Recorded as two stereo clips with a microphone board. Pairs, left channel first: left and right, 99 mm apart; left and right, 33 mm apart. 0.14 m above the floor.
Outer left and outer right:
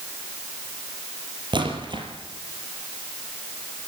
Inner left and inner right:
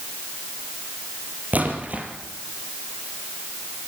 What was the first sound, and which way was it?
A splash, 50° right (ahead or behind).